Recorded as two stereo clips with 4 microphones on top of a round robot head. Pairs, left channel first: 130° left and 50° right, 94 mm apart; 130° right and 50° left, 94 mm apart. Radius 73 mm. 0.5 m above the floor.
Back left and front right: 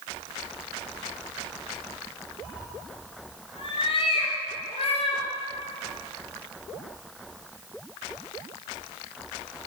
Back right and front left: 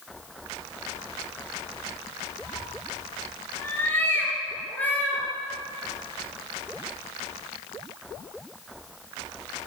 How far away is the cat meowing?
About 4.5 m.